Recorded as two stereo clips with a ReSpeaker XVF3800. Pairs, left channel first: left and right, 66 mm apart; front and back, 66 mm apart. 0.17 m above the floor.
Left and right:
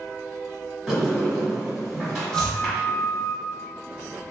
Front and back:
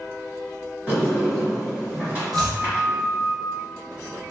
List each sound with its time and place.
0.9 s a sliding door: 175° right, 1.7 m
2.3 s chopping: 170° left, 1.1 m